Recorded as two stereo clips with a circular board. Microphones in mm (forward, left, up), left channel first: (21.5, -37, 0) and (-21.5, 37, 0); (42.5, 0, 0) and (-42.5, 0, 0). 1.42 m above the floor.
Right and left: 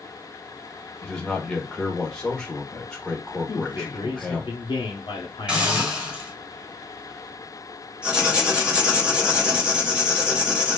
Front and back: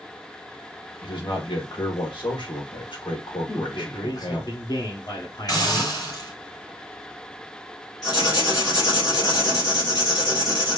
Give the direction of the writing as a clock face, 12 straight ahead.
11 o'clock.